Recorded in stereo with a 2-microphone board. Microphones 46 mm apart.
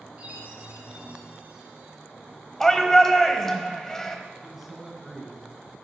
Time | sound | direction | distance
0.2 | a chime | 30° right (ahead or behind) | 4.5 m
2.6 | a shout | 10° left (ahead or behind) | 1.2 m
4.4 | a man speaking | 10° right (ahead or behind) | 2.5 m